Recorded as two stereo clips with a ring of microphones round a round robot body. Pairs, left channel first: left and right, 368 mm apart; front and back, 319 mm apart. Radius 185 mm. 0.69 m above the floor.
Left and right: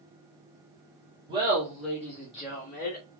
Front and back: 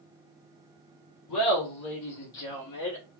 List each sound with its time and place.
1.3 s laughter: 15° right, 1.9 m; by 3.0 s 30° left, 2.5 m